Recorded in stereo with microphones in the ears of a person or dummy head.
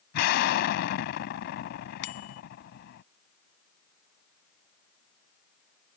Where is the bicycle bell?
65° left (ahead or behind).